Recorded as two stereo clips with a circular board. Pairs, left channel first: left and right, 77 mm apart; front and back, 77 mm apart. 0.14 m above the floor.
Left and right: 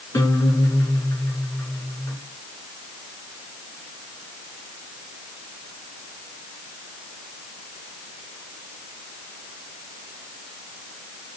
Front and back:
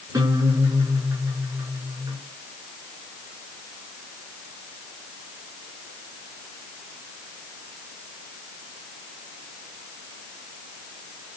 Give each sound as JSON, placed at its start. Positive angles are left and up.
{"t": 0.1, "sound": "a guitar", "azimuth_deg": 145, "distance_m": 6.5}